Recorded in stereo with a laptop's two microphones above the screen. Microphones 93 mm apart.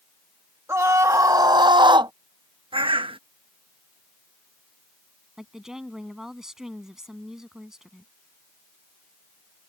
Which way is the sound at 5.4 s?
5° right (ahead or behind).